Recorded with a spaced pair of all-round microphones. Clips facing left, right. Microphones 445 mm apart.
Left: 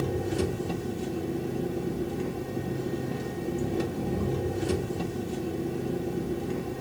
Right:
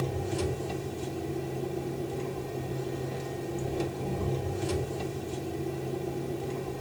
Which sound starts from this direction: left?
An engine running, at 0.0 s.